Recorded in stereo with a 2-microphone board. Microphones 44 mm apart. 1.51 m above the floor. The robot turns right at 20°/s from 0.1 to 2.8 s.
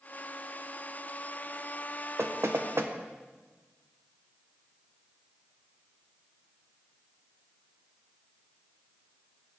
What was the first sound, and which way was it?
Knocking, 80° right.